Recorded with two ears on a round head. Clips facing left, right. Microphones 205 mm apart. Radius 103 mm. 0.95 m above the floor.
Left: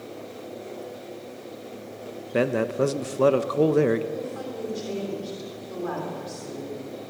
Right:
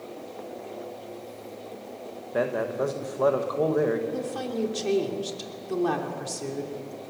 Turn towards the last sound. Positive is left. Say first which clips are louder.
# right 2 dB
turn(degrees=-75)  # may be behind; listen again after turning